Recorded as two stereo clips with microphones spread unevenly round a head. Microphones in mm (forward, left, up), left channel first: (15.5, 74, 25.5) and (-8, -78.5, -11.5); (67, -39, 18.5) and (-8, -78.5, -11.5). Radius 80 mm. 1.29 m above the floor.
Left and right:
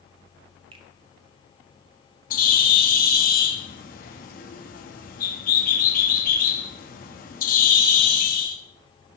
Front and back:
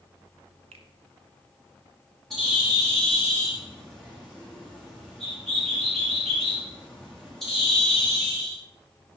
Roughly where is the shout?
I don't hear a shout.